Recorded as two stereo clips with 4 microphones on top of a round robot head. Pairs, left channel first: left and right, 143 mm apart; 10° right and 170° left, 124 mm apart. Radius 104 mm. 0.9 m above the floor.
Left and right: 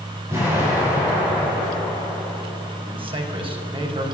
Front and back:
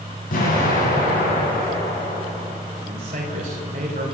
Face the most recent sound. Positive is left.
turn(degrees=-145)